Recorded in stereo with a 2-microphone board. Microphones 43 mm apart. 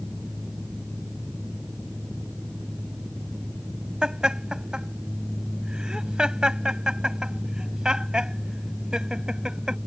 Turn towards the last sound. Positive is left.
turn(degrees=-20)  # may be behind; listen again after turning